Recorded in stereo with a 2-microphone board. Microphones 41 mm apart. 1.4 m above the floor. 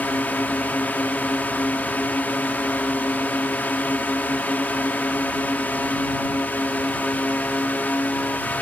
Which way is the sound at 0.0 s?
50° left (ahead or behind).